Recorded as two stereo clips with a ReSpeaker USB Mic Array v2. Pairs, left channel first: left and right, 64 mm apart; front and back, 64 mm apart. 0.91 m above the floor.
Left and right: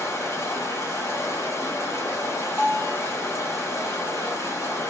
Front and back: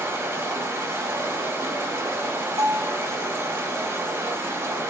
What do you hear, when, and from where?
0.0 s running water: 135° left, 1.7 m
2.6 s a bell: 170° right, 2 m